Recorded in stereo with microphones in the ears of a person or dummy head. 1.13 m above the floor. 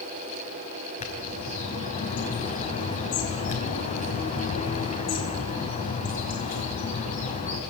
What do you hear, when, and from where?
1.0 s a bird: 35° left (ahead or behind), 5 m